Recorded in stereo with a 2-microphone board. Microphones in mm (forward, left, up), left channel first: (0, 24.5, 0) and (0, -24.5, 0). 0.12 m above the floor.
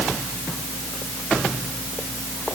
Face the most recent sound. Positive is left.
No sound to turn to.